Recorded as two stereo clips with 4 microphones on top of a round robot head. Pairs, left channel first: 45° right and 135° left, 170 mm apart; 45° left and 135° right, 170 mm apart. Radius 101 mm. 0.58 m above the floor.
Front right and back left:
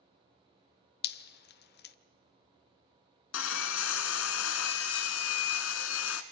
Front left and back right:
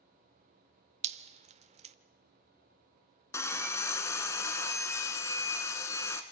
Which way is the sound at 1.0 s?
80° right.